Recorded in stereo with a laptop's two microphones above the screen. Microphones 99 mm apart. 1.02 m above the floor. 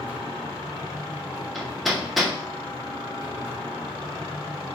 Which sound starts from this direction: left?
A machine running, at 0.0 s.